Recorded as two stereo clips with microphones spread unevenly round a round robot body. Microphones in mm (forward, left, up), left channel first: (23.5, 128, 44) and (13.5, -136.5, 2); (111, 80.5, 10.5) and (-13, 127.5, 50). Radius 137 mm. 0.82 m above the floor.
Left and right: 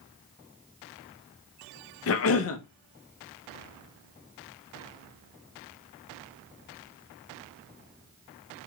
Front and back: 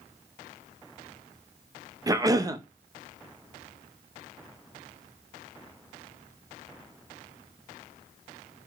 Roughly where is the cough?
Left.